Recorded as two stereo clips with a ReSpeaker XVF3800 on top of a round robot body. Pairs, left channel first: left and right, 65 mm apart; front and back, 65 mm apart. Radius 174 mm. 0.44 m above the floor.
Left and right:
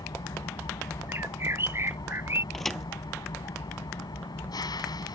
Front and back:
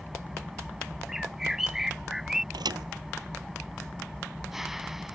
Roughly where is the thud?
Behind.